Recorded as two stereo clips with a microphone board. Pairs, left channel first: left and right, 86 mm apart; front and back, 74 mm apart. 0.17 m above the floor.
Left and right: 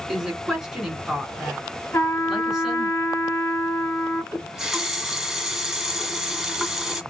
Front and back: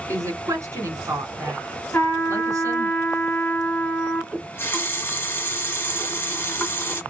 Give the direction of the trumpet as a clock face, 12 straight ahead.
10 o'clock.